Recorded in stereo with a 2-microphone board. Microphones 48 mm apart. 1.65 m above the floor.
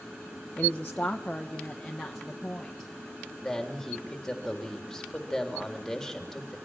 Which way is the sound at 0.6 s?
35° left (ahead or behind).